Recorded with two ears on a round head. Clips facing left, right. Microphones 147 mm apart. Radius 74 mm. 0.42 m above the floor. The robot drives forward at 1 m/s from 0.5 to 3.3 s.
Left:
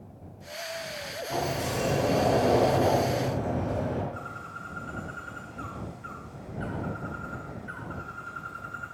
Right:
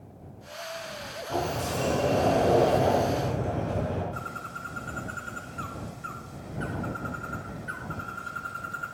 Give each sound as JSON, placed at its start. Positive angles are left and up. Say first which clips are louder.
{"t": 1.3, "sound": "a sliding door", "louder": "right 1 dB", "side_deg": 5, "distance_m": 4.0}
{"t": 4.1, "sound": "a bird", "louder": "right 2 dB", "side_deg": -55, "distance_m": 2.5}